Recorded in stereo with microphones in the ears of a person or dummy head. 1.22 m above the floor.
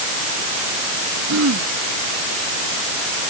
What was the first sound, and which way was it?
Throat clearing, 85° right.